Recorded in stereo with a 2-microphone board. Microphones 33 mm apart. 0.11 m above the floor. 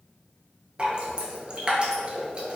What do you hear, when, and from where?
0.8 s dripping: 35° right (ahead or behind), 0.5 m